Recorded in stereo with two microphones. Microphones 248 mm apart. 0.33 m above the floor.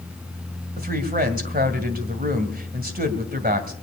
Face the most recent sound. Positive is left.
turn(degrees=-40)  # may be behind; listen again after turning